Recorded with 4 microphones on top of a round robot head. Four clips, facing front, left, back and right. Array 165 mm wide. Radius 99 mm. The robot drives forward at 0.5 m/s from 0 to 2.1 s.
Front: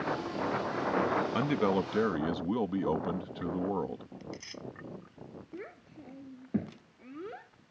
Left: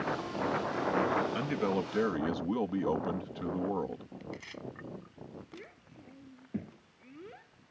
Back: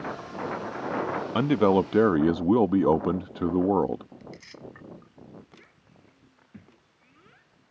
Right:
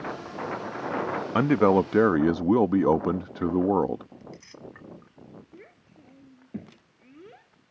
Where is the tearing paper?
70° left.